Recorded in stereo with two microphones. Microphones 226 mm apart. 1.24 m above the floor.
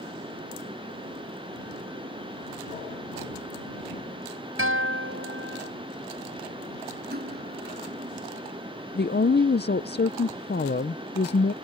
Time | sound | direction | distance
4.6 | a guitar | 80° right | ?
7.1 | cutlery clinking | 50° right (ahead or behind) | ?
8.9 | a woman speaking | 50° left (ahead or behind) | ?